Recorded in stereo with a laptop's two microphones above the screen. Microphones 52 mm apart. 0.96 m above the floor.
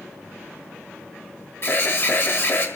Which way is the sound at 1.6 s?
50° left (ahead or behind).